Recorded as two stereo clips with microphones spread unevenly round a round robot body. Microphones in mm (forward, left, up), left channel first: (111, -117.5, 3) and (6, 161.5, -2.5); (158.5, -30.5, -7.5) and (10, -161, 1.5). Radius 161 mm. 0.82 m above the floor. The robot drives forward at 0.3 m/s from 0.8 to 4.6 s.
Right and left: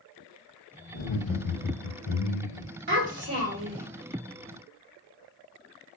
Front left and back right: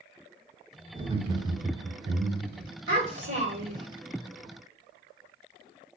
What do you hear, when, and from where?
0.9 s laughter: 70° right, 2.5 m; by 2.7 s 85° right, 2 m
2.9 s a child speaking: 165° left, 2.0 m; by 3.9 s 170° left, 2.5 m